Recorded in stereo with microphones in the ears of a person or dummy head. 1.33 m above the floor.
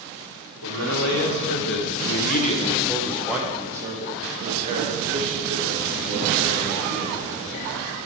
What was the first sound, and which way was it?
A man speaking, 80° left.